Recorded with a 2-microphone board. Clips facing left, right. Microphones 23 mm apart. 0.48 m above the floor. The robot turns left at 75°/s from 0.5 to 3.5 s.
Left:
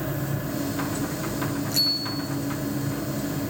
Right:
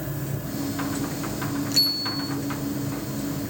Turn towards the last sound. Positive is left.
turn(degrees=70)